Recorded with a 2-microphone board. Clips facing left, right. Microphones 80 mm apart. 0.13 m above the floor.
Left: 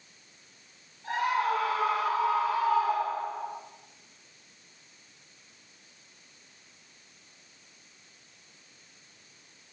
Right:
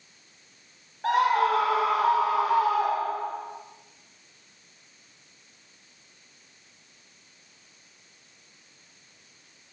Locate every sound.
1.0 s a scream: 75° right (ahead or behind), 4.5 m